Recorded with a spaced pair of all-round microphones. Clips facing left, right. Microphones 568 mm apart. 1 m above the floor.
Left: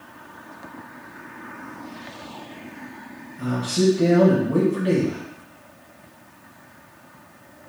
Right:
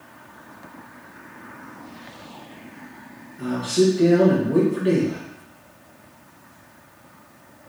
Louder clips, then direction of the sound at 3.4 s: Right 3 dB; 30° left (ahead or behind).